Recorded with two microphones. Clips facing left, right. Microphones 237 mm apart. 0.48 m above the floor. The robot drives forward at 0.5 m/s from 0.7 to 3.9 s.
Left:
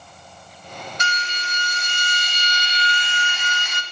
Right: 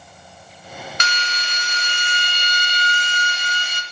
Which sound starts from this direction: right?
A drill, at 1.0 s.